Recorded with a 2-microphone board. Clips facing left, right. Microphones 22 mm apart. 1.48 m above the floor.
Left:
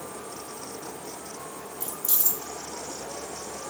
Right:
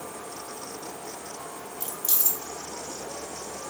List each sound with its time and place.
1.8 s keys jangling: 45° right (ahead or behind), 2.5 m